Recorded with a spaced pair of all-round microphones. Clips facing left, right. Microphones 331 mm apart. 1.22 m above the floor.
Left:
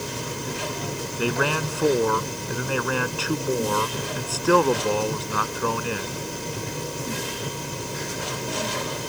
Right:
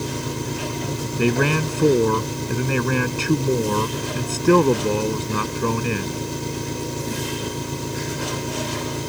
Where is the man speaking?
35° right (ahead or behind).